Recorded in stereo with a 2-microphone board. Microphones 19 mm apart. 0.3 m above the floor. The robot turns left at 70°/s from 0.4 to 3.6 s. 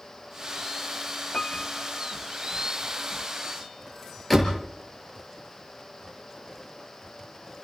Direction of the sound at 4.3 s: Centre (ahead or behind).